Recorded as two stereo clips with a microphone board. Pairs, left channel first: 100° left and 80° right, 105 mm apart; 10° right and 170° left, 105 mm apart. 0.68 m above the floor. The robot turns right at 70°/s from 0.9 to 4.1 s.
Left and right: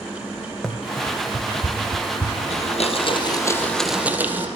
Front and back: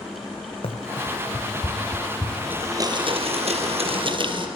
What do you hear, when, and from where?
0.6 s running footsteps: 15° left, 2.5 m; by 2.4 s 130° left, 4.5 m
2.5 s a blender: 95° left, 3.5 m; by 4.5 s 155° right, 3.5 m